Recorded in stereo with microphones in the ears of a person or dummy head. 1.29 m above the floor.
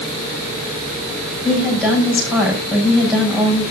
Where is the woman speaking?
5° right (ahead or behind), 6.5 m.